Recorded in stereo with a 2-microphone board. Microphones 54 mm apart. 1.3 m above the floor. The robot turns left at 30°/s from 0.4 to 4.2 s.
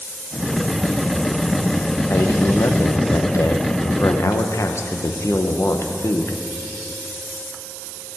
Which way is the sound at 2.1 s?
115° left.